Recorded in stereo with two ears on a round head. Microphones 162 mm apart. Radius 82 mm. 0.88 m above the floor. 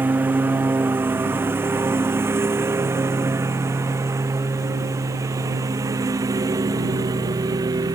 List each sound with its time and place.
0.0 s a lawn mower: 10° right (ahead or behind); by 8.0 s 20° right (ahead or behind)